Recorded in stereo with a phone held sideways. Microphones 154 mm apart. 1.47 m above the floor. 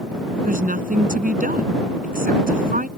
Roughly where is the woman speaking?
Right.